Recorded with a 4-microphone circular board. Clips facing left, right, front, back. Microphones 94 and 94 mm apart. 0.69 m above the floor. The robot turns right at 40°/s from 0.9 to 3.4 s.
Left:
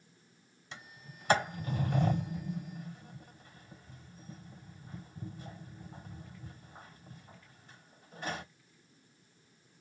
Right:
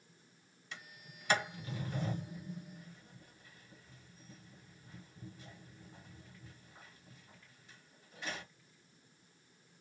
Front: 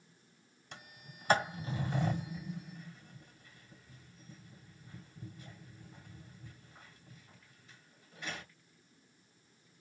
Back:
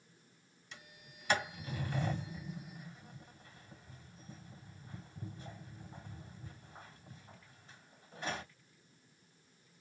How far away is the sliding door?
About 1.4 m.